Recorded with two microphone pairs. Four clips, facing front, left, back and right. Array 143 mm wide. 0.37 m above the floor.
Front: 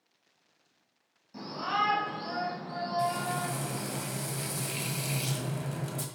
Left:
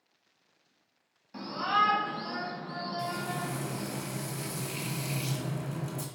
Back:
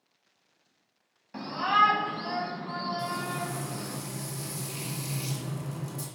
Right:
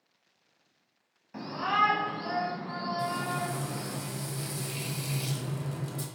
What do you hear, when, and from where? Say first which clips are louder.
1.3 s a shout: even, back 6 dB; 170° right, 2 m; by 4.0 s 130° right, 3.5 m
3.0 s frying: right 3 dB, front 2 dB; 15° left, 1.7 m